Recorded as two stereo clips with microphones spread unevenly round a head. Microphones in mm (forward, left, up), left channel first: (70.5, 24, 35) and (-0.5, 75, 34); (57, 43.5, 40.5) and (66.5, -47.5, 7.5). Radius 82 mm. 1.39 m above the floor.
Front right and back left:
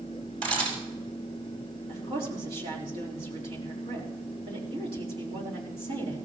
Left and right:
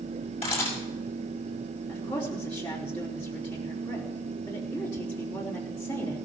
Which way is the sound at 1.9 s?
160° left.